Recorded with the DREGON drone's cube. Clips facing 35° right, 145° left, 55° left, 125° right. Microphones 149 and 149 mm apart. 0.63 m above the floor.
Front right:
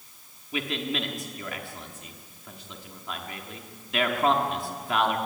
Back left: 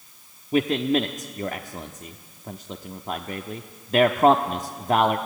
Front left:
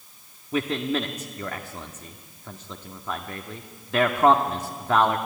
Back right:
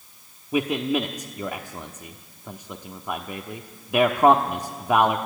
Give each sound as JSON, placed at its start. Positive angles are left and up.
{"t": 0.5, "sound": "a man speaking", "azimuth_deg": 165, "distance_m": 0.9}